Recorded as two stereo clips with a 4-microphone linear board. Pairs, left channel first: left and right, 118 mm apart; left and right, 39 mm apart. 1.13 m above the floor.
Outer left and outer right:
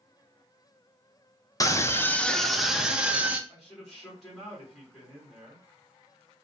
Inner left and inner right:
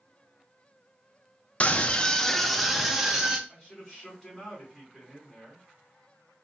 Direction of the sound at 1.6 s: 30° left (ahead or behind).